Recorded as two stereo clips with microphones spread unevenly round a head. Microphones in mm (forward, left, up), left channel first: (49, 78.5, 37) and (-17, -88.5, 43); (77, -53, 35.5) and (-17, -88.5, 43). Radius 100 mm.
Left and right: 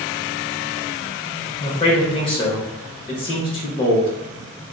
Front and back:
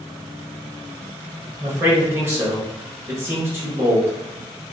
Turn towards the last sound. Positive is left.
turn(degrees=130)